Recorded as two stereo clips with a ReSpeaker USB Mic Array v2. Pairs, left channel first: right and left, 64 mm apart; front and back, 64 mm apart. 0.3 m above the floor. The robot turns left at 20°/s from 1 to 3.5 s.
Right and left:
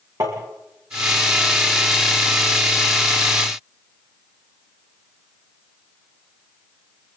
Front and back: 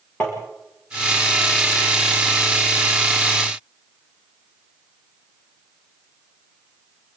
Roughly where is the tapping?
Left.